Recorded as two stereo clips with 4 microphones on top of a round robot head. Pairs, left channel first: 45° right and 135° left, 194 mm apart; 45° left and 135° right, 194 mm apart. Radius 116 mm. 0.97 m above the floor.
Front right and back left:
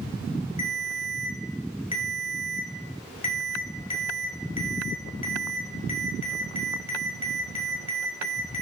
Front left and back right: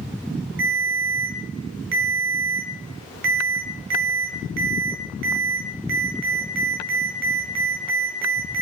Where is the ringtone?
105° right, 1.4 m.